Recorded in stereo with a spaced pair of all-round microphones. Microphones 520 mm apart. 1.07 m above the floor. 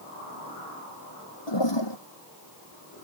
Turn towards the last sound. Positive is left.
turn(degrees=55)  # may be behind; listen again after turning